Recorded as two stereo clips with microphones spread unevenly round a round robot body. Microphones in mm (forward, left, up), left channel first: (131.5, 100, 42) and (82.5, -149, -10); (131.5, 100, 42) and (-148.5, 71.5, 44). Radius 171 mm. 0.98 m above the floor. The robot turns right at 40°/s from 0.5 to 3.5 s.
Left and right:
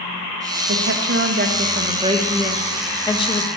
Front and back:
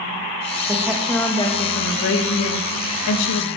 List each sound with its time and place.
0.7 s a woman speaking: 100° right, 1.4 m; by 3.5 s 15° left, 1.4 m